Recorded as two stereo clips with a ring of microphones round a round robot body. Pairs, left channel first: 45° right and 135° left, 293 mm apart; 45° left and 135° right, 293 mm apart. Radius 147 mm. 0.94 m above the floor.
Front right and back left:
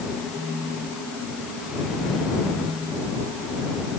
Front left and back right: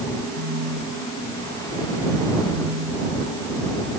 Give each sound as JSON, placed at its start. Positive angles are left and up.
{"t": 0.3, "sound": "a phone buzzing", "azimuth_deg": -135}